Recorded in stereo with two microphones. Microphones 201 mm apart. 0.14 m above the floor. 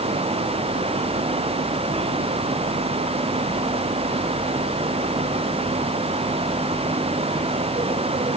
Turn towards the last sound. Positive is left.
No sound to turn to.